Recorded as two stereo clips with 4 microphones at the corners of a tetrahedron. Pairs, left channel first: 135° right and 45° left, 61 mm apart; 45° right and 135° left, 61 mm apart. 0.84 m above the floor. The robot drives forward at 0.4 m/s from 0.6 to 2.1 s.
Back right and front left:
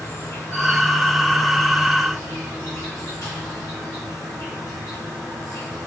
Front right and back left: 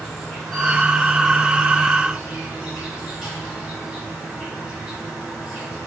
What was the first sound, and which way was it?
An insect, 135° right.